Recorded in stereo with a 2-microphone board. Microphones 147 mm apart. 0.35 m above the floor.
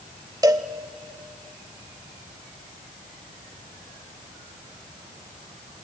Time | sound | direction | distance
0.4 | a cowbell | 25° right (ahead or behind) | 0.6 m